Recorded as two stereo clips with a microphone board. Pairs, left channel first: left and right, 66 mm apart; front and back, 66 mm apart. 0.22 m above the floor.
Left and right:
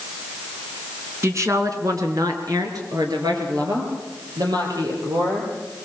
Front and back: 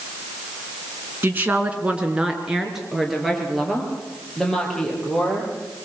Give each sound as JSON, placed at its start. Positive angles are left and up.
{"t": 1.2, "sound": "a woman speaking", "azimuth_deg": -125, "distance_m": 2.5}